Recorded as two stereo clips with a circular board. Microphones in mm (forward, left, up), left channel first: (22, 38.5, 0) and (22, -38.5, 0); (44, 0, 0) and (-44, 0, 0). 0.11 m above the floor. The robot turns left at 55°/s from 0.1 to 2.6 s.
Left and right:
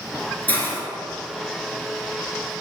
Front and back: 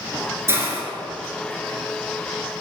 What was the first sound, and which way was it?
A hiss, 145° left.